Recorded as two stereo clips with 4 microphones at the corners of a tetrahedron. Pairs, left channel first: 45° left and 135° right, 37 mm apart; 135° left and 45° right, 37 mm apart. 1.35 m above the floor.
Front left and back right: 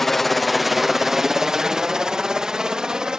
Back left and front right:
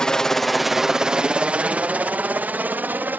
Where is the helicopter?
115° left; by 3.2 s 70° right.